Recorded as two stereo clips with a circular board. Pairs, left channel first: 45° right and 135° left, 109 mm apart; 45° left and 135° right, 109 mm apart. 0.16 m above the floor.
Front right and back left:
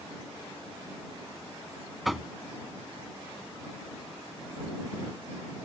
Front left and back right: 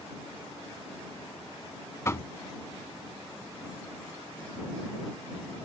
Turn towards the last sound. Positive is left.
turn(degrees=45)